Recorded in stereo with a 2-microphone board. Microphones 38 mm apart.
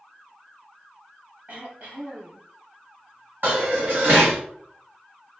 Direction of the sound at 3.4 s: 65° right (ahead or behind).